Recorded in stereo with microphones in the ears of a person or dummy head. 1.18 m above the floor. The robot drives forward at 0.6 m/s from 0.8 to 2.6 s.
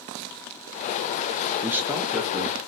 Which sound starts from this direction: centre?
A man speaking, at 1.6 s.